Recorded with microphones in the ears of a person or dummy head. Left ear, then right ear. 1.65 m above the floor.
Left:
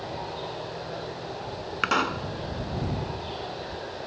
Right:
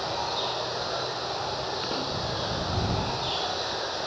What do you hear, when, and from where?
0.0 s running water: 45° right (ahead or behind)
1.8 s a pop: 65° left (ahead or behind)